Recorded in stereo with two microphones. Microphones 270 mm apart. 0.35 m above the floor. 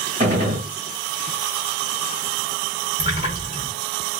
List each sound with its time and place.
0.2 s a gunshot: 30° right (ahead or behind), 1.5 m
3.0 s a splash: 20° right (ahead or behind), 1.9 m